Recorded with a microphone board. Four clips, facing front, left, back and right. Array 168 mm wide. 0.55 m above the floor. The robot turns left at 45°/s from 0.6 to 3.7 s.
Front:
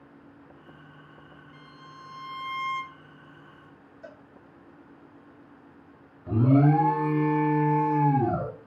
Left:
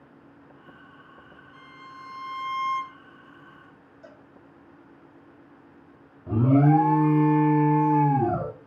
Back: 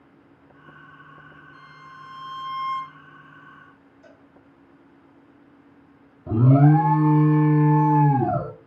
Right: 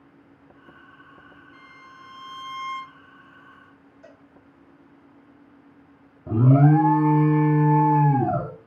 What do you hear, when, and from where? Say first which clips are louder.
1.5 s a violin: left 6 dB, back 4 dB; 145° left, 0.7 m; by 3.0 s 80° left, 0.7 m
4.0 s a cowbell: left 1 dB, front 5 dB; 5° left, 0.5 m
6.3 s an alarm: right 1 dB, back 3 dB; 155° right, 0.5 m